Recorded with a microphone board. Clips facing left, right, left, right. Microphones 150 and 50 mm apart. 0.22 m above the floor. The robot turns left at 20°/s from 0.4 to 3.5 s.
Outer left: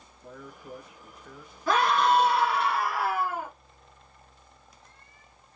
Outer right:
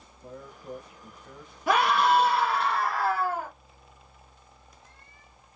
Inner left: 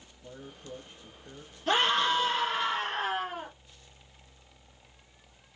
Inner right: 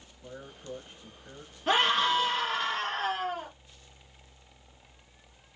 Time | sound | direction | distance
0.2 | a man speaking | 45° right (ahead or behind) | 2 m
1.7 | a scream | 160° right | 3.5 m